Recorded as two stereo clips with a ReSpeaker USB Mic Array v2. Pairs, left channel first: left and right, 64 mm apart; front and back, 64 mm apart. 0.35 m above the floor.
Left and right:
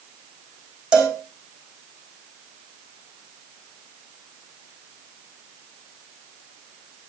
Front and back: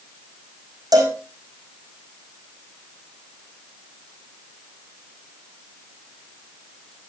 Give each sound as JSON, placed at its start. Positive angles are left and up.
{"t": 0.9, "sound": "a cowbell", "azimuth_deg": -165, "distance_m": 4.0}